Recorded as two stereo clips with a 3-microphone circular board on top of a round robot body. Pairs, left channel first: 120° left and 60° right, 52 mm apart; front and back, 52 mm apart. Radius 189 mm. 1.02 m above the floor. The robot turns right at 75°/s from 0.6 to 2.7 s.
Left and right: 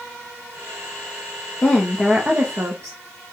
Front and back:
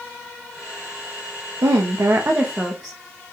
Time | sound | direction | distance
1.6 | a woman speaking | straight behind | 0.6 m